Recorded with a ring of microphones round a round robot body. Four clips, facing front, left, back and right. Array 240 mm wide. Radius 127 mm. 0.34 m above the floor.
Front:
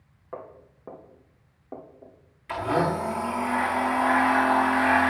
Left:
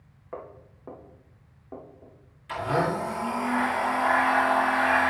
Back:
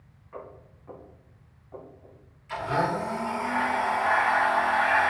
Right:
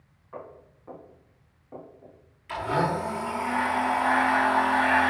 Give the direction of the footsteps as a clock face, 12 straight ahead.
11 o'clock.